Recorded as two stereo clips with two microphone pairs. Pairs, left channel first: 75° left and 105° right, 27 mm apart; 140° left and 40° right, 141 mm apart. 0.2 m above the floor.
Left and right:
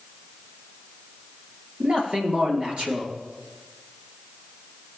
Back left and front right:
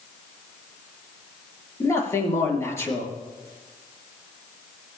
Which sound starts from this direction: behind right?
A man speaking, at 1.8 s.